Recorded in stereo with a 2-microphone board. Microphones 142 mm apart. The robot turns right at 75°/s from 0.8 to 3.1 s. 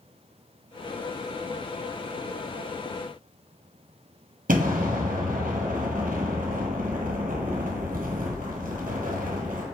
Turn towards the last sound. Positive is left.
turn(degrees=-80)